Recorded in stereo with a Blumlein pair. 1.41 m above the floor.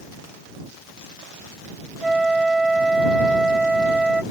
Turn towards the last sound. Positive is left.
turn(degrees=-5)